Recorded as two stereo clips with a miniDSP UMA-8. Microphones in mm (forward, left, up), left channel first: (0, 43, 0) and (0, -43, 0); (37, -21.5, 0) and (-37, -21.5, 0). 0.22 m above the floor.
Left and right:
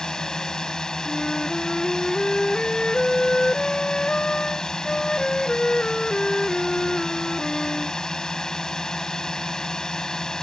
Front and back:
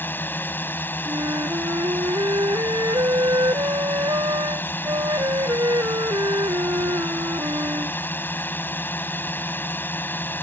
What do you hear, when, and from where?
0.0 s a drone: 15° left
1.1 s a flute: 170° left